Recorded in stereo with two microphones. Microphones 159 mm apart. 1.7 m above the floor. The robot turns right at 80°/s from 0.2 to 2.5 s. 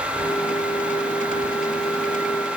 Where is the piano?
No piano in this recording.